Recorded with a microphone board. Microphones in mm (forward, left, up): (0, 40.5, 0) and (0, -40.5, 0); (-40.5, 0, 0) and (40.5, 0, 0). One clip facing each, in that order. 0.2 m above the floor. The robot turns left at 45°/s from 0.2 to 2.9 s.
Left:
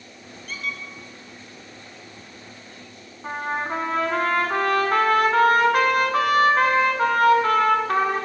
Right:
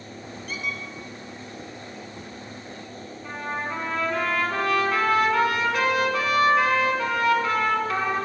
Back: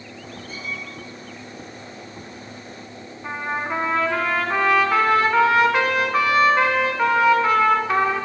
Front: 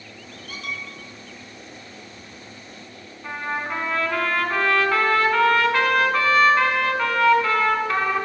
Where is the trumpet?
115° left, 0.7 m.